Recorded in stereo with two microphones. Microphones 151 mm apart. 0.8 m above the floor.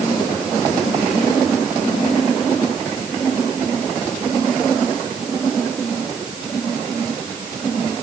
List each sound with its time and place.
Only background noise.